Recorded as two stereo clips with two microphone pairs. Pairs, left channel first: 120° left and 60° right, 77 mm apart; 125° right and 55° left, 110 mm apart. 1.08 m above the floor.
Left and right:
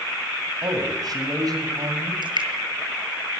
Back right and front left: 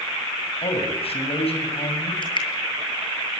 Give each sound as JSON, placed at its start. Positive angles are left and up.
{"t": 0.6, "sound": "a man speaking", "azimuth_deg": -95, "distance_m": 6.5}
{"t": 2.2, "sound": "dripping", "azimuth_deg": -80, "distance_m": 7.5}